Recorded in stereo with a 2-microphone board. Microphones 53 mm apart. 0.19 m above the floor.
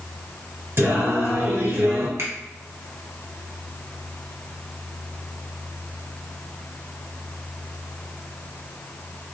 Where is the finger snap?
70° right (ahead or behind), 2.5 m.